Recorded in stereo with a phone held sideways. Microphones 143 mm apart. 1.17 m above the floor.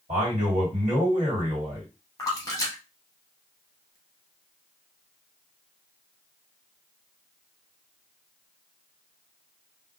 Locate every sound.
0.1 s a man speaking: 55° right (ahead or behind), 1.7 m
2.2 s a splash: 25° left (ahead or behind), 0.9 m